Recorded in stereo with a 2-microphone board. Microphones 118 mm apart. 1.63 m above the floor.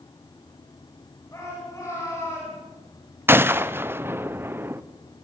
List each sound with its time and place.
1.3 s a shout: 30° left (ahead or behind), 9.5 m; by 2.6 s 25° left (ahead or behind), 10 m
3.3 s a gunshot: 20° right (ahead or behind), 0.7 m